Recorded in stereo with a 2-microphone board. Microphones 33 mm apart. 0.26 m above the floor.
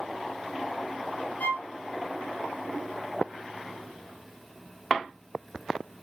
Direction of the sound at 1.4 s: 70° left (ahead or behind).